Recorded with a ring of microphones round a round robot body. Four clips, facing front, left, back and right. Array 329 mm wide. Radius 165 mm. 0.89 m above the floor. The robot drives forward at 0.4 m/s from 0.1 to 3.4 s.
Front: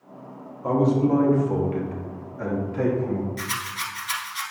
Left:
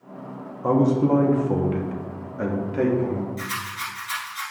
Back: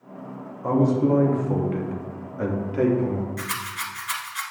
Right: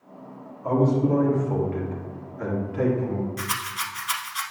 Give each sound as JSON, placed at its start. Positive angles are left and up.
{"t": 0.6, "sound": "a man speaking", "azimuth_deg": 100, "distance_m": 1.6}
{"t": 3.4, "sound": "a rattle", "azimuth_deg": -105, "distance_m": 1.0}